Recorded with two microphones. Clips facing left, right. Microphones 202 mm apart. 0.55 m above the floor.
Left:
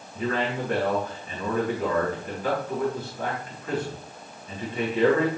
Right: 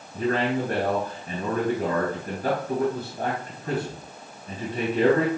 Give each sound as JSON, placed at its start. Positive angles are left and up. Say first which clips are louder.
{"t": 0.1, "sound": "a man speaking", "louder": "right 3 dB", "side_deg": -55, "distance_m": 4.0}